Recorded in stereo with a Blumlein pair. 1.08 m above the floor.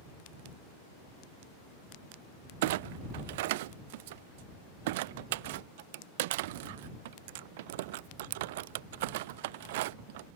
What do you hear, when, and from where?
2.6 s a clunk: 50° right